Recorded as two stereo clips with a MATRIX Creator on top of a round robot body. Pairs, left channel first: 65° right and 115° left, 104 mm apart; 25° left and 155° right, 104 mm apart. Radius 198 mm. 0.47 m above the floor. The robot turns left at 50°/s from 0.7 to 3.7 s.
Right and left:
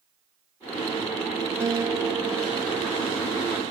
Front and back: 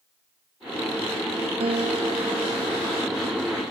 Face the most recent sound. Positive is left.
turn(degrees=70)